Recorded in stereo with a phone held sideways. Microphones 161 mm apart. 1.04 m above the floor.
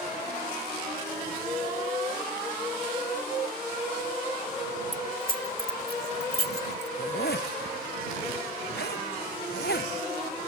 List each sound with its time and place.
4.9 s keys jangling: 55° left (ahead or behind); by 6.9 s 85° left
7.0 s a zipper: 85° left